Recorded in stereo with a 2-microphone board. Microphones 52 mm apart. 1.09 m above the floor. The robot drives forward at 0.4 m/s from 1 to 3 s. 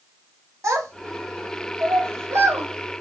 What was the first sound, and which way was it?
A child speaking, 75° right (ahead or behind).